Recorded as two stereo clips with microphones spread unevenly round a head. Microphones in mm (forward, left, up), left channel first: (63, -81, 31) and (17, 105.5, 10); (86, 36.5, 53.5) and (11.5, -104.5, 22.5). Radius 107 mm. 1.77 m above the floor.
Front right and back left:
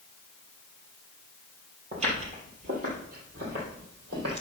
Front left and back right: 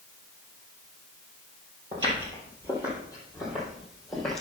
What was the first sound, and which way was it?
Footsteps, 170° left.